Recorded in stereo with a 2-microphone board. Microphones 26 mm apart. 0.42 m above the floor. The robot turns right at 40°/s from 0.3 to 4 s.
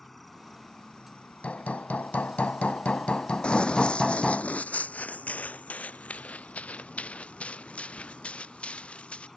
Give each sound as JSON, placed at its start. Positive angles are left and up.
{"t": 0.0, "sound": "an insect", "azimuth_deg": 10}
{"t": 1.4, "sound": "hammering", "azimuth_deg": 65}
{"t": 3.4, "sound": "running footsteps", "side_deg": 40}